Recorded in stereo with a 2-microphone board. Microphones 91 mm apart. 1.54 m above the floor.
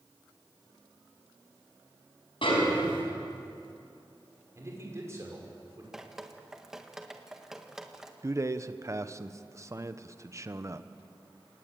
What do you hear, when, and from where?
2.4 s a snare drum: 75° left (ahead or behind), 6 m
4.5 s a man speaking: 30° right (ahead or behind), 6 m
5.9 s dripping: 5° right (ahead or behind), 1.5 m
8.2 s a man speaking: 35° right (ahead or behind), 1.0 m